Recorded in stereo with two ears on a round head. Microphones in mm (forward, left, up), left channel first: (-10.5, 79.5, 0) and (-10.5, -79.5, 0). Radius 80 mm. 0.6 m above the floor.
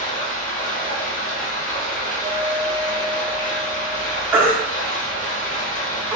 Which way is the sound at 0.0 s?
40° left (ahead or behind).